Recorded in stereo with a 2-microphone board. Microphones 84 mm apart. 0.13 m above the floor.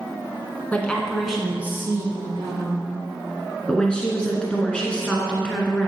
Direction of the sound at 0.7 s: 20° left (ahead or behind).